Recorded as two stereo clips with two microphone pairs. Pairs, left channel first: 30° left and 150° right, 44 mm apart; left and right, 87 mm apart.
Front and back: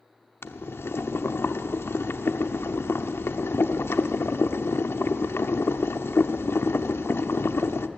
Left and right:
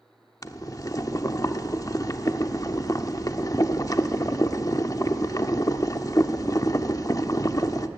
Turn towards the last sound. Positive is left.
turn(degrees=45)